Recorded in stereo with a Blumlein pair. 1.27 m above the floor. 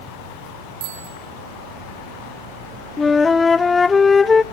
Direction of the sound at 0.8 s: 50° right.